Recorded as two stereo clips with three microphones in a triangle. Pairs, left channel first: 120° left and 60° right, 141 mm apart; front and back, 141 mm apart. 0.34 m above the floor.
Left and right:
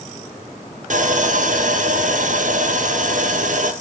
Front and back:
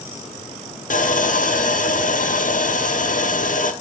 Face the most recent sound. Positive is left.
turn(degrees=-30)